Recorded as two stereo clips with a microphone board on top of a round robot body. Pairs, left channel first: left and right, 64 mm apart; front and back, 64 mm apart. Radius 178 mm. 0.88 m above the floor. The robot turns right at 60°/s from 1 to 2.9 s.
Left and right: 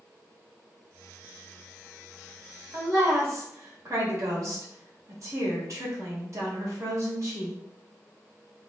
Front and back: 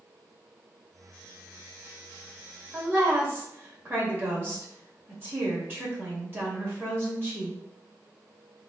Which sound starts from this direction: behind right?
A woman speaking, at 2.7 s.